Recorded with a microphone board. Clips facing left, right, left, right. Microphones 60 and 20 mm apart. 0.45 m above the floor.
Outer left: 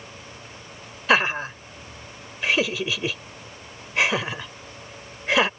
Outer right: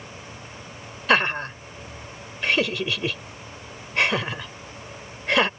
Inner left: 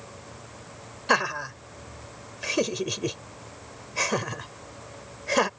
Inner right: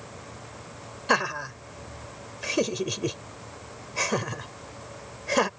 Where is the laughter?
Centre (ahead or behind).